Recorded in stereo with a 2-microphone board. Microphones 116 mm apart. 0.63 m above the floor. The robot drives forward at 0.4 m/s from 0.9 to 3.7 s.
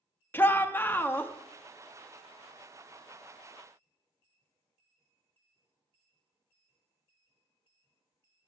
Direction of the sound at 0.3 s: 15° left (ahead or behind).